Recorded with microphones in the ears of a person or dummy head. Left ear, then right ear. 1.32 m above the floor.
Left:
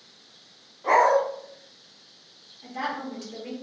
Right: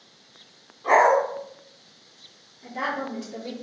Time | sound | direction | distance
0.8 | a dog barking | 35° left (ahead or behind) | 1.3 m
2.6 | a woman speaking | 65° left (ahead or behind) | 1.0 m